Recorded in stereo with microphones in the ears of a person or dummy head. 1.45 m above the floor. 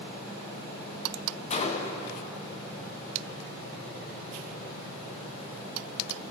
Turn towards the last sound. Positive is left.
turn(degrees=30)  # may be behind; listen again after turning